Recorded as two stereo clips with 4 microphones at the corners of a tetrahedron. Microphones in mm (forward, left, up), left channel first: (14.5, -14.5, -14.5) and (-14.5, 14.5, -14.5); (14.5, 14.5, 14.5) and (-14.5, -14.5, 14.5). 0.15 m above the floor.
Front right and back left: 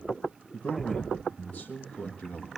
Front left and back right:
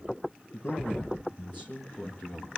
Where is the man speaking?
20° left, 3.5 m; by 2.5 s 10° left, 5 m.